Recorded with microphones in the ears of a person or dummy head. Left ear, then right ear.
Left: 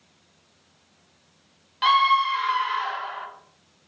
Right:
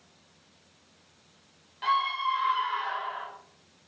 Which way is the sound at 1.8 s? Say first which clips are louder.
Left 8 dB; 50° left (ahead or behind).